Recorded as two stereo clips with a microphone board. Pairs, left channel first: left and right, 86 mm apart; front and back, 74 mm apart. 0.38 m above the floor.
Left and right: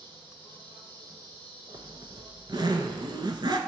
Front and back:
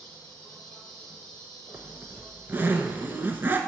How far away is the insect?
About 2.5 m.